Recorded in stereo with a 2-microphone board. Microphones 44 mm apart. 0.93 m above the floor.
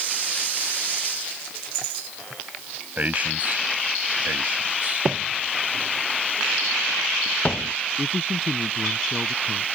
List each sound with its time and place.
3.0 s a man speaking: 40° right (ahead or behind)
5.0 s footsteps: centre (ahead or behind); by 7.7 s 35° left (ahead or behind)
8.0 s a man speaking: 10° right (ahead or behind)